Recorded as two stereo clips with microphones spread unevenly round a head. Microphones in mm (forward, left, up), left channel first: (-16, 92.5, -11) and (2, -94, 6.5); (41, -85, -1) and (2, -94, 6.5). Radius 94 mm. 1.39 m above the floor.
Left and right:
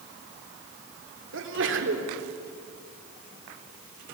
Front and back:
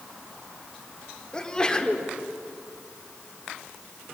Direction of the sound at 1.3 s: 60° right.